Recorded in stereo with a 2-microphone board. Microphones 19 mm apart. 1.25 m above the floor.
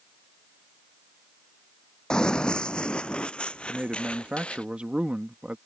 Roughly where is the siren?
No siren in this recording.